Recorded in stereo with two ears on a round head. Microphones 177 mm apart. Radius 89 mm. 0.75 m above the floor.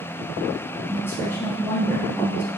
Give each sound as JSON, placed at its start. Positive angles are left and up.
{"t": 0.9, "sound": "a woman speaking", "side_deg": 10, "distance_m": 0.5}